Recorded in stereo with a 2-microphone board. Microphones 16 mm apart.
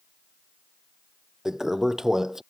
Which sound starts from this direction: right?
A toilet flushing, at 1.4 s.